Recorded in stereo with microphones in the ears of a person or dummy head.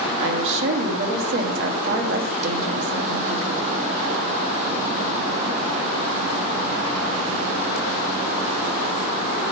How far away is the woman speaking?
About 1.3 m.